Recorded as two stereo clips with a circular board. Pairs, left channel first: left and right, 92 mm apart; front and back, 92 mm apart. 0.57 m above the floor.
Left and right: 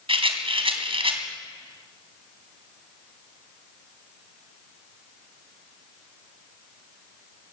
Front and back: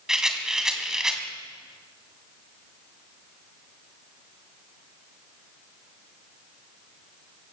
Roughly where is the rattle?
Right.